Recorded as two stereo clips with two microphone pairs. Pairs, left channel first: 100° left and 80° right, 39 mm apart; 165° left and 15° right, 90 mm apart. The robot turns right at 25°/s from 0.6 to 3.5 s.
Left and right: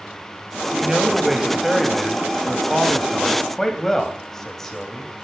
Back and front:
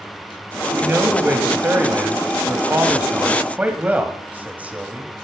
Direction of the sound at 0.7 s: 35° right.